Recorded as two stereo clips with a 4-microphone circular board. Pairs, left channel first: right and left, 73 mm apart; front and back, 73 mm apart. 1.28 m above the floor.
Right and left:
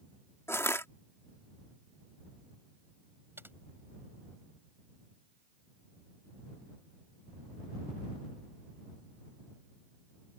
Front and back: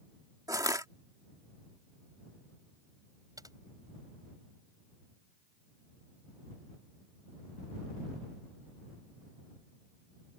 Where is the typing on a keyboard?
145° left.